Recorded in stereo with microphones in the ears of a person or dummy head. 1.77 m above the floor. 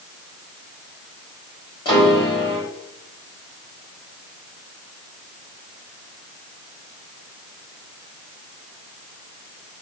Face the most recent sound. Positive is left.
turn(degrees=25)  # may be behind; listen again after turning